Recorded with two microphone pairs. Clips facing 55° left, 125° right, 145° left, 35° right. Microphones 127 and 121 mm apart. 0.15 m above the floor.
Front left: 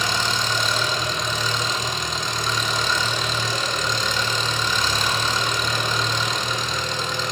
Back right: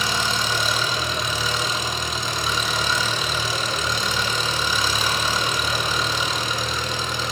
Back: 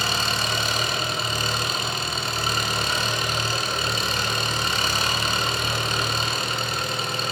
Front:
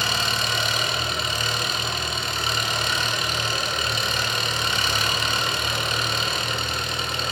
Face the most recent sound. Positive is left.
turn(degrees=155)